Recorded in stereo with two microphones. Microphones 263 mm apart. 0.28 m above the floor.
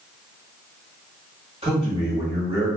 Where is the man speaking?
20° right (ahead or behind), 1.2 m.